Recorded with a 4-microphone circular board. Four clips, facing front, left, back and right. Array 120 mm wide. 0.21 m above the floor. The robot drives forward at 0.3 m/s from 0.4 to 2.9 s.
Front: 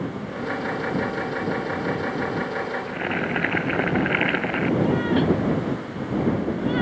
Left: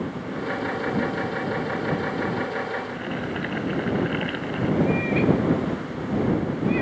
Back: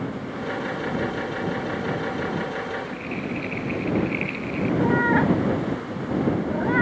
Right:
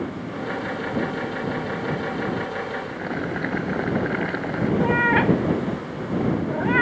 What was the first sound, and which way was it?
Boiling, 20° right.